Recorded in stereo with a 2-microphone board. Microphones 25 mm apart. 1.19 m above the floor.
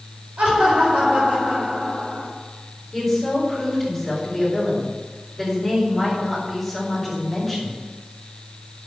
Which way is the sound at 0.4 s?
75° right (ahead or behind).